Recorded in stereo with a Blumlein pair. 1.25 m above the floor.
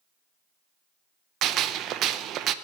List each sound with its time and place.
1.4 s a gunshot: 35° right, 0.6 m